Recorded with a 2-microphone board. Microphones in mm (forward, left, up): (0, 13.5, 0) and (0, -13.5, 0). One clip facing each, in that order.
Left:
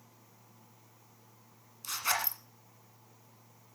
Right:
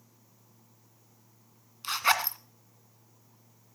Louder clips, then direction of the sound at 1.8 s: Right 7 dB; 40° right (ahead or behind).